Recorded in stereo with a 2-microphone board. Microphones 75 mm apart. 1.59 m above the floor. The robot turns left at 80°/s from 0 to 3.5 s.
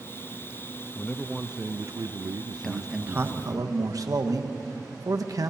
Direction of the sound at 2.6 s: 10° left.